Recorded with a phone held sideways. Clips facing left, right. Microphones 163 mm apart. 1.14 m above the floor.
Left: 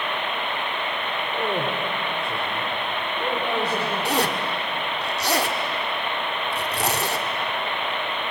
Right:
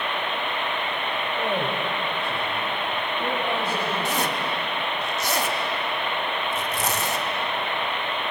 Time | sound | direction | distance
1.3 | a man speaking | 85° left | 3.5 m
4.0 | a zipper | 65° left (ahead or behind) | 1.5 m